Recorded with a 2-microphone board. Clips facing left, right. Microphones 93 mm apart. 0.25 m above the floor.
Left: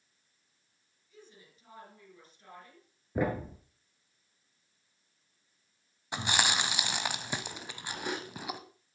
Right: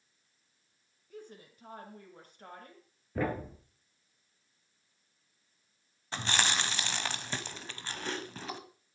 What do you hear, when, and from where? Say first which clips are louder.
1.1 s a woman speaking: right 7 dB; 60° right (ahead or behind), 3 m
3.1 s a thud: left 2 dB; 15° left (ahead or behind), 1.9 m
6.1 s chewing: left 1 dB; 15° left (ahead or behind), 1.1 m